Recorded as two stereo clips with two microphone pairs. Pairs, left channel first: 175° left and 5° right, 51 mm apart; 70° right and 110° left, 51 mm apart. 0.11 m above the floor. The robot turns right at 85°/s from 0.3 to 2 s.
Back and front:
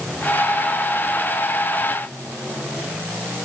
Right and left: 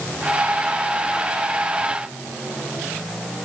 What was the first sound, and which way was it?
Only background noise.